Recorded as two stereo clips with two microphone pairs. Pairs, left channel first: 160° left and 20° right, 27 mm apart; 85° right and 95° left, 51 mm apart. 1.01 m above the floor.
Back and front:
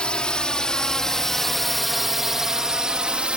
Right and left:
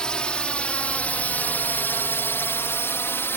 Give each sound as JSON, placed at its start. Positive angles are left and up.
{"t": 0.0, "sound": "a drone", "azimuth_deg": -155}